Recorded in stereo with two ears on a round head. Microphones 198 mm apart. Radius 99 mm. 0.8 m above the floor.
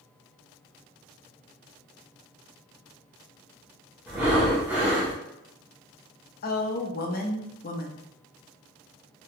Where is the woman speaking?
45° left (ahead or behind), 0.6 m.